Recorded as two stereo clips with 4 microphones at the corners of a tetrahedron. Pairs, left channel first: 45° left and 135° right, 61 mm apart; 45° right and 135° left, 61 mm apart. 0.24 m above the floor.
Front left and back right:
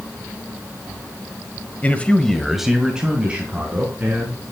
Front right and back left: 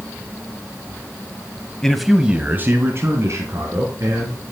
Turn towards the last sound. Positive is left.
turn(degrees=160)